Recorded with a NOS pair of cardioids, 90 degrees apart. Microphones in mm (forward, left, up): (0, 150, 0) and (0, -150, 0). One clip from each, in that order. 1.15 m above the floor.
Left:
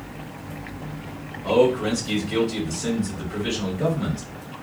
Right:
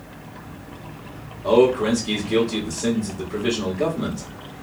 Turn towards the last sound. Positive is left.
turn(degrees=-30)